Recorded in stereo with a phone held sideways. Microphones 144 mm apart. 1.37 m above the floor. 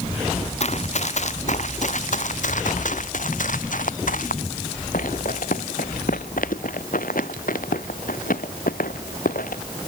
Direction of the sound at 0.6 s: 50° left (ahead or behind).